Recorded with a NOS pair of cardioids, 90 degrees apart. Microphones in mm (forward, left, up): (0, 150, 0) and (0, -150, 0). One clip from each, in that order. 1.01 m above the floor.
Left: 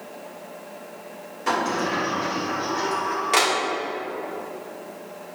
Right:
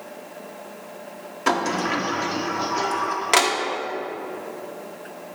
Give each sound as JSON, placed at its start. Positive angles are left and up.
{"t": 1.5, "sound": "a sliding door", "azimuth_deg": -45, "distance_m": 1.1}